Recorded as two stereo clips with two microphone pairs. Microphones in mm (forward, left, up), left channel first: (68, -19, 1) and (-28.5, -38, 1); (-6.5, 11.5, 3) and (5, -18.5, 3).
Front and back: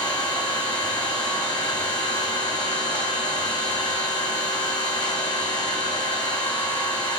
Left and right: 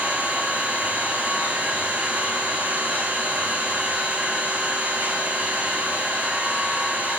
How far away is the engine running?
About 3.5 m.